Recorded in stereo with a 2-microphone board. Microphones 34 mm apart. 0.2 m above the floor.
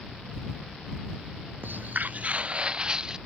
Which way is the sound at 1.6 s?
70° right (ahead or behind).